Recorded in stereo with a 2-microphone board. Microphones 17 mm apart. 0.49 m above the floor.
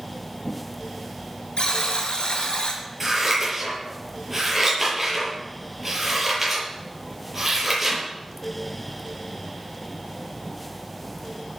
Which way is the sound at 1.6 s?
65° left (ahead or behind).